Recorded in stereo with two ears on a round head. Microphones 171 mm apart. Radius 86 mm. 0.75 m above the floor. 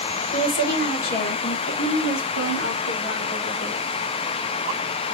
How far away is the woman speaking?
About 2.5 m.